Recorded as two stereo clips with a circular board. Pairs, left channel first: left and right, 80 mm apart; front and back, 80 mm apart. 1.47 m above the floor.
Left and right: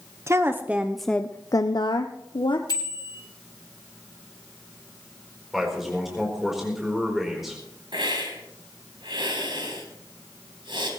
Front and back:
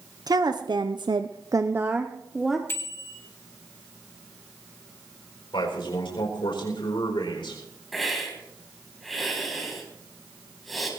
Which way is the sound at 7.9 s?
90° right.